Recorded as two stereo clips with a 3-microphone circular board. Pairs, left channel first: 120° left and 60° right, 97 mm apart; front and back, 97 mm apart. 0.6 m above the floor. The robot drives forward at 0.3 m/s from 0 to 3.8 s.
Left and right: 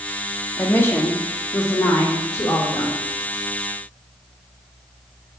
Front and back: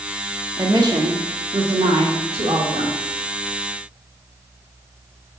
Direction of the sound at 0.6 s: Straight behind.